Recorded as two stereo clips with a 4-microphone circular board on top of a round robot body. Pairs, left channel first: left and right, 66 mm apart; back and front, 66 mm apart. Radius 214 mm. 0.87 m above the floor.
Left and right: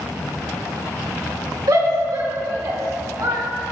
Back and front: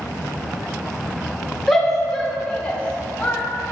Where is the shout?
90° right, 2 m; by 3.4 s 115° right, 2 m.